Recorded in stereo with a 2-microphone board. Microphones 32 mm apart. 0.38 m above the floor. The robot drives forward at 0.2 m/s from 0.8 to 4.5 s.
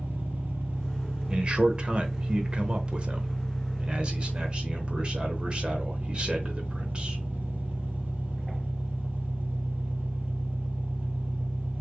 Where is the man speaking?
35° right (ahead or behind), 1.0 m.